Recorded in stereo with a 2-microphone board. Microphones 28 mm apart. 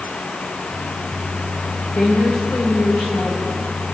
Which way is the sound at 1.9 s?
55° left (ahead or behind).